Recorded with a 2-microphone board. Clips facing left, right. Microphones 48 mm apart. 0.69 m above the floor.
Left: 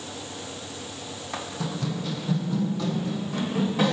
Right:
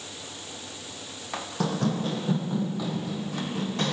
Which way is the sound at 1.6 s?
60° right (ahead or behind).